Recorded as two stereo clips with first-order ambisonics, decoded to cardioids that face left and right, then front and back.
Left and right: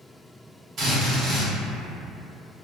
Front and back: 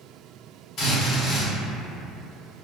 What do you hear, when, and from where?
0.8 s a drill: 45° right, 1.4 m